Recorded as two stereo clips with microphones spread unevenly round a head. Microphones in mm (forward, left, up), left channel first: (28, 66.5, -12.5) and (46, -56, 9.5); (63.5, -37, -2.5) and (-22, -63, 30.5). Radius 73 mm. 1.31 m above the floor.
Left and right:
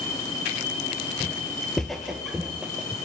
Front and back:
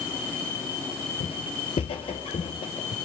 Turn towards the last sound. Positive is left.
turn(degrees=-10)